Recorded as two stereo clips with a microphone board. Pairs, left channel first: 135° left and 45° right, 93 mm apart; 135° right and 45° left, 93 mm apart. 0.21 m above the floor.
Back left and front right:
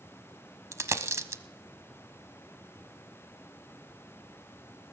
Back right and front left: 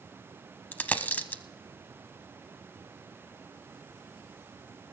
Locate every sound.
0.7 s a dropped coin: 75° right, 0.6 m